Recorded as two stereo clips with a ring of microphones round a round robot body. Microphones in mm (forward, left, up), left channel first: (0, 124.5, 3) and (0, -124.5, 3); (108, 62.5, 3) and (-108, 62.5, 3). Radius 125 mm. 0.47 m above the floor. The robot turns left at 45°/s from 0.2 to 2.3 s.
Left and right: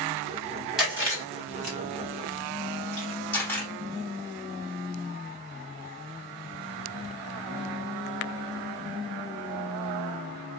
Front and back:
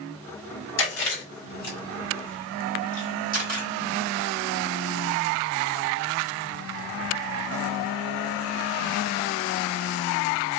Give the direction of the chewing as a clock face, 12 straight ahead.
12 o'clock.